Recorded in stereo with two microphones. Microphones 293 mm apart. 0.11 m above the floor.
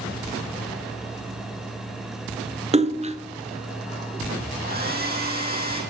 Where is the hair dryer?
30° right (ahead or behind), 3.5 m.